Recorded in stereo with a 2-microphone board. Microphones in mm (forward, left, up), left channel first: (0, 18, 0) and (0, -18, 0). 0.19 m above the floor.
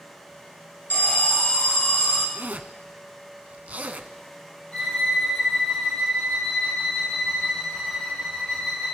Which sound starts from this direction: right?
A zipper, at 2.4 s.